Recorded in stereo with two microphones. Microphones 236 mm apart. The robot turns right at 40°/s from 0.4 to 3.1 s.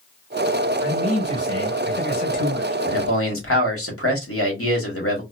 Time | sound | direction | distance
0.8 | a man speaking | 85° left | 1.4 m
2.9 | a man speaking | 65° left (ahead or behind) | 1.1 m